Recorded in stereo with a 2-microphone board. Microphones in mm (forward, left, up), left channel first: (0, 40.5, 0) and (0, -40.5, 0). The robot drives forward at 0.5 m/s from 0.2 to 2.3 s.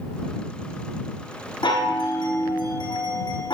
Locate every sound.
1.6 s a chime: 80° left, 4.5 m; by 3.5 s 85° left, 4.5 m